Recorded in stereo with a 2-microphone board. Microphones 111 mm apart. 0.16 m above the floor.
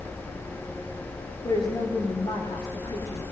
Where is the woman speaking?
45° left (ahead or behind), 7.5 m.